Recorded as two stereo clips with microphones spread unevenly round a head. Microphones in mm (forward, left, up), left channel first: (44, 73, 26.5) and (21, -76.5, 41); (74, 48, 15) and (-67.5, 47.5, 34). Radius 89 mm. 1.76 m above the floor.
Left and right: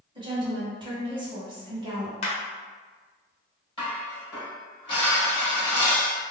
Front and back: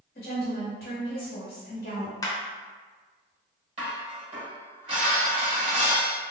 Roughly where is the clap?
Ahead left.